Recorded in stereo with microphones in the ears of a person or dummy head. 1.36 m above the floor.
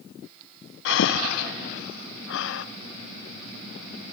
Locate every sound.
0.8 s breathing: 70° left (ahead or behind), 0.6 m